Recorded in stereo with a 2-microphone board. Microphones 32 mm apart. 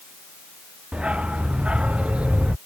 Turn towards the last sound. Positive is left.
turn(degrees=-35)  # may be behind; listen again after turning